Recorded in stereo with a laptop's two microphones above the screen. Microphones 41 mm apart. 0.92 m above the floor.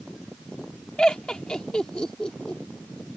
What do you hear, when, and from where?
1.0 s laughter: 20° left (ahead or behind)